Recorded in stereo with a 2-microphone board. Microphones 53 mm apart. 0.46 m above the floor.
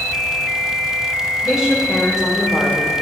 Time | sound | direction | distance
1.4 | a woman speaking | 15° right (ahead or behind) | 2.5 m